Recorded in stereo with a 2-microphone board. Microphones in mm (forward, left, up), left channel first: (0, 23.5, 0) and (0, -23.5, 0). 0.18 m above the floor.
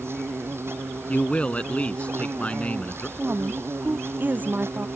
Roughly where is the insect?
Right.